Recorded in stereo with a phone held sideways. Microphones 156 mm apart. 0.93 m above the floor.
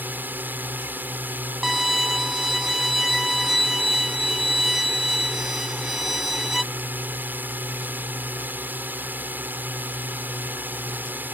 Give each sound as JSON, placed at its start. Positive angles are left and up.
{"t": 0.0, "sound": "a drone", "side_deg": -10}
{"t": 1.6, "sound": "a violin", "side_deg": 0}